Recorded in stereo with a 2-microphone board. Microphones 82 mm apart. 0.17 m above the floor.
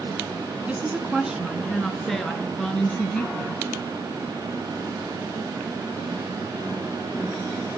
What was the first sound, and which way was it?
A woman speaking, 15° right (ahead or behind).